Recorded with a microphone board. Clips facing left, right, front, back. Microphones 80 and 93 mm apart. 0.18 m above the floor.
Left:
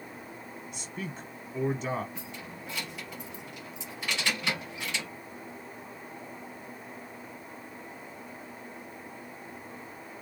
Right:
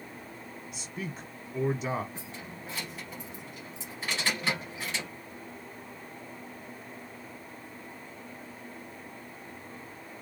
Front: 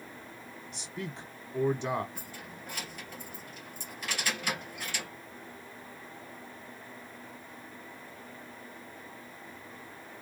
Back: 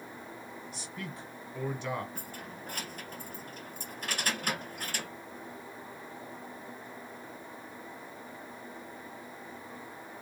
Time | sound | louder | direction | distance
0.7 | a man speaking | even, front 5 dB | 20° right | 1.1 m
2.1 | keys jangling | left 1 dB, back 2 dB | 140° right | 2 m